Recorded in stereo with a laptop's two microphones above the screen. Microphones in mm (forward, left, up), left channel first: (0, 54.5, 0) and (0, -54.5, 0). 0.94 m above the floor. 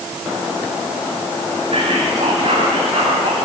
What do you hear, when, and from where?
1.7 s whispering: 55° right (ahead or behind), 7.5 m